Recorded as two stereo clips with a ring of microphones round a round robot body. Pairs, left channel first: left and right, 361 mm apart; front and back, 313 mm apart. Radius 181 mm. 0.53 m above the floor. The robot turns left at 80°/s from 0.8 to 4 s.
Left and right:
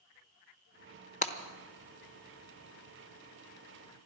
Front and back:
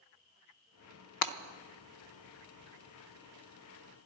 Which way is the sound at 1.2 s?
20° left.